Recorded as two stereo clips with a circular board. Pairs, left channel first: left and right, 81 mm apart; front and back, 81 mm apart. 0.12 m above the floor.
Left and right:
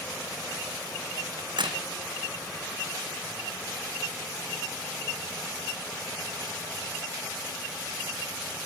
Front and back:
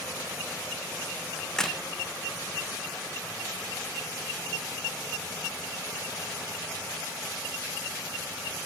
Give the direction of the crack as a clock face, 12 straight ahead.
3 o'clock.